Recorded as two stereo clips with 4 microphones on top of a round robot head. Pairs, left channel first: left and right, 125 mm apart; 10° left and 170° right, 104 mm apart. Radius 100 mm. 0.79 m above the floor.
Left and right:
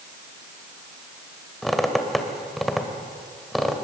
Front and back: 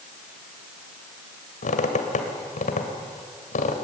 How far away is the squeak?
About 2.0 m.